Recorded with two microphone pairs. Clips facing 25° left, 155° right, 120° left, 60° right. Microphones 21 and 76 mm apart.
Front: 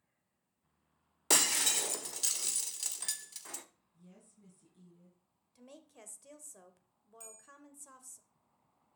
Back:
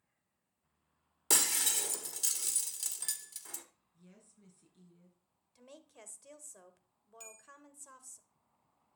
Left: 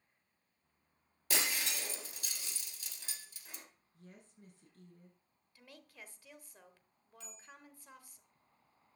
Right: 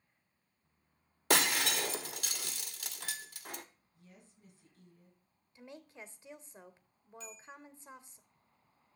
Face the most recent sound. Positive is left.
turn(degrees=150)